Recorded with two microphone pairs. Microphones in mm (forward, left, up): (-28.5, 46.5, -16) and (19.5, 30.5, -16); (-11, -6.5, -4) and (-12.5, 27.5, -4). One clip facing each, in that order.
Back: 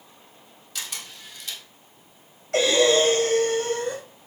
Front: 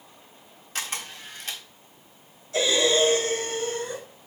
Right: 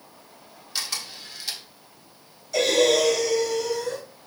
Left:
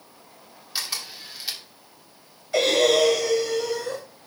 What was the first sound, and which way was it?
A camera shutter, 20° left.